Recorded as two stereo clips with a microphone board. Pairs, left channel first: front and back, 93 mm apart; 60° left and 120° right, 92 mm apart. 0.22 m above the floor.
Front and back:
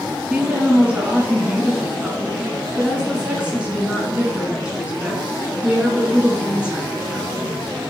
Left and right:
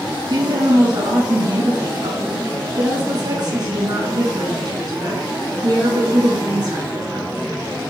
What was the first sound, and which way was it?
A woman speaking, 105° right.